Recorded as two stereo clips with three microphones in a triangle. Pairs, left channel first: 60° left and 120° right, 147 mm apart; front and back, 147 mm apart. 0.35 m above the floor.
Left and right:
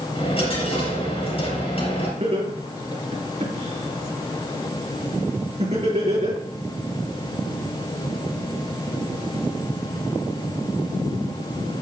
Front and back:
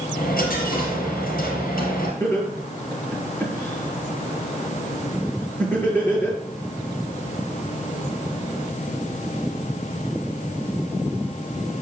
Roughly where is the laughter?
Right.